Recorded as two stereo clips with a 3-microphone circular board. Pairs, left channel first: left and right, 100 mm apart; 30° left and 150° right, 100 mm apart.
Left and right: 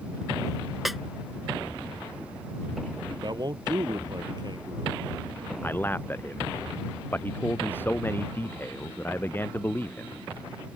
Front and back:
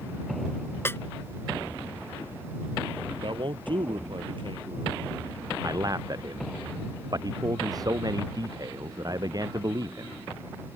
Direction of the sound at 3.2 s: 130° right.